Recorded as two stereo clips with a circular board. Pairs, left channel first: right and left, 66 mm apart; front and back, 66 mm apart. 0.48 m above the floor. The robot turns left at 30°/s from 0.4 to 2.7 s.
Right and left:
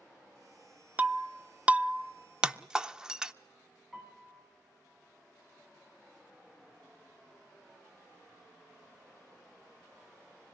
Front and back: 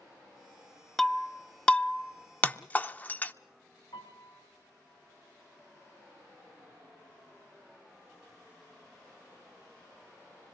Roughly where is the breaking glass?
Left.